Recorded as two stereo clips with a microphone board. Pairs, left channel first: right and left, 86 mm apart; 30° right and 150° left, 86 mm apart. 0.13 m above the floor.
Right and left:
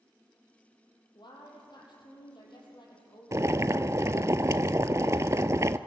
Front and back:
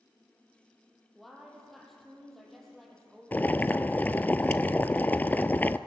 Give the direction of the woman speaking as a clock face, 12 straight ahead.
4 o'clock.